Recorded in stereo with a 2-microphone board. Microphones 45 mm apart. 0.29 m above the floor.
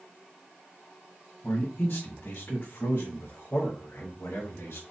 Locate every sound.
1.4 s a man speaking: 50° left (ahead or behind), 1.5 m; by 4.8 s 70° left (ahead or behind), 3 m